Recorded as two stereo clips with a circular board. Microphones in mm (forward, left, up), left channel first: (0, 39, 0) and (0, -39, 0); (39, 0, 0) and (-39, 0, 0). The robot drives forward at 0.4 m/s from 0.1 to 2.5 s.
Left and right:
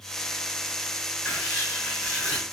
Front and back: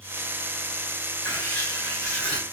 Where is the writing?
25° left, 1.4 m; by 2.4 s 55° left, 1.3 m.